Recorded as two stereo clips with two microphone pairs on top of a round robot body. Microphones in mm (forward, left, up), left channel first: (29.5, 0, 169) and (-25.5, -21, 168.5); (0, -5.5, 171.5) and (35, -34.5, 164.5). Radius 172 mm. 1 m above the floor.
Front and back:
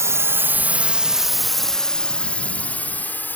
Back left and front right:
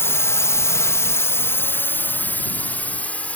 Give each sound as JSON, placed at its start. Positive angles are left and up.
{"t": 0.0, "sound": "a drone", "azimuth_deg": 165}